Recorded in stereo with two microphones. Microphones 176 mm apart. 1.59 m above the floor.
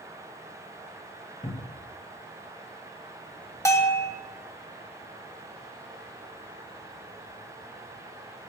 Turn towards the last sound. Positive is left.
turn(degrees=15)  # may be behind; listen again after turning